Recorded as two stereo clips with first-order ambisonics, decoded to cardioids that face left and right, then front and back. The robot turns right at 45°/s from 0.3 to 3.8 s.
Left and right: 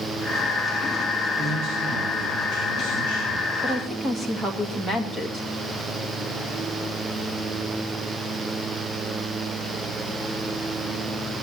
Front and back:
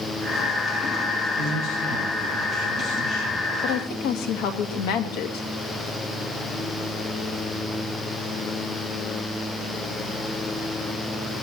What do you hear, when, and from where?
1.4 s a man speaking: 135° right, 8.5 m; by 3.5 s 40° right, 8.5 m
3.6 s a woman speaking: 15° right, 2 m; by 5.5 s 10° right, 2 m